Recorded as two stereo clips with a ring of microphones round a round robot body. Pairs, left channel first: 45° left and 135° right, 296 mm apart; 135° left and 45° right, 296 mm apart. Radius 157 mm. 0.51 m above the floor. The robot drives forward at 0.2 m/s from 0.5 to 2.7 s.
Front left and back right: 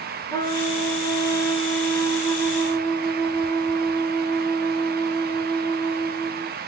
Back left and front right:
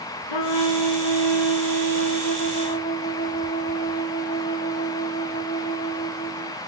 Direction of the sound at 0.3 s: 125° left.